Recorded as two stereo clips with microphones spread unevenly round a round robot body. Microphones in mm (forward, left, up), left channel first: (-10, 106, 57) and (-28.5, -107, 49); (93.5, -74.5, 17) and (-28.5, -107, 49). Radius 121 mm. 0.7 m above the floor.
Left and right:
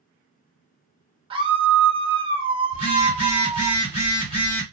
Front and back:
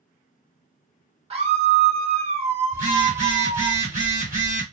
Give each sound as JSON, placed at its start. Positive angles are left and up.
{"t": 1.3, "sound": "a scream", "azimuth_deg": -145, "distance_m": 1.1}
{"t": 2.7, "sound": "a phone buzzing", "azimuth_deg": 150, "distance_m": 1.5}